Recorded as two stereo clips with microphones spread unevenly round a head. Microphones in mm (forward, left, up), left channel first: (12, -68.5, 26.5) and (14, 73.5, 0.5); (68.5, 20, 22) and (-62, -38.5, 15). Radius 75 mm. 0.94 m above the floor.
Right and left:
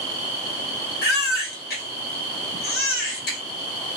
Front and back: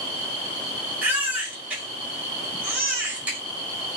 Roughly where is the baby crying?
Right.